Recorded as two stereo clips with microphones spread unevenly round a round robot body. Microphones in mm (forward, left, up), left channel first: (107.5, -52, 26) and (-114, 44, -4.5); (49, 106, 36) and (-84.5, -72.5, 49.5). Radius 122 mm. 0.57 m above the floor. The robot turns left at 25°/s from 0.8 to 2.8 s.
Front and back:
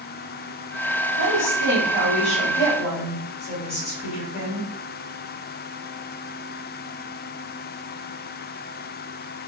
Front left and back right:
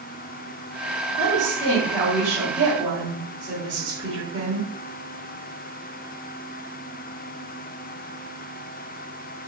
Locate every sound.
1.2 s a woman speaking: 20° right, 1.6 m; by 4.7 s 65° right, 1.6 m